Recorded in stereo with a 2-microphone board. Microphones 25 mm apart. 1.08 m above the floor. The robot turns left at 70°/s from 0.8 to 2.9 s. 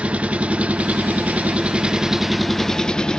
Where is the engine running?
60° right, 0.7 m; by 3.2 s 150° left, 0.7 m.